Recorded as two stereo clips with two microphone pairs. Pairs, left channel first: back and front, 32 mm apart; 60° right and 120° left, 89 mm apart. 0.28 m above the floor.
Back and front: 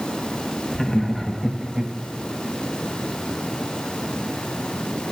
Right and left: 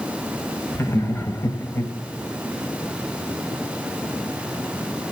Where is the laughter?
115° right, 1.2 m; by 1.9 s 40° right, 1.0 m.